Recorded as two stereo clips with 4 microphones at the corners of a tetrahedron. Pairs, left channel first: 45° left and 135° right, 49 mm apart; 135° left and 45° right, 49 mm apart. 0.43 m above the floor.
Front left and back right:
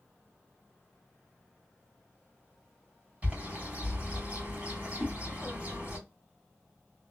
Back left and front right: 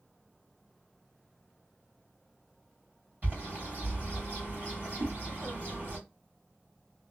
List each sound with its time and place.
3.2 s a bird: 85° right, 2 m
5.0 s a whoosh: 60° right, 1.0 m